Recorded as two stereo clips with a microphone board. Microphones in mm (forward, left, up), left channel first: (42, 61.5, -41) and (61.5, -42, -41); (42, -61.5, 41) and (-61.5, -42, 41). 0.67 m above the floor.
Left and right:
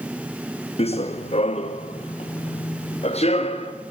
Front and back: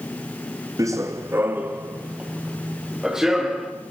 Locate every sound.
0.8 s running footsteps: 115° left, 1.7 m; by 3.7 s 80° left, 3.5 m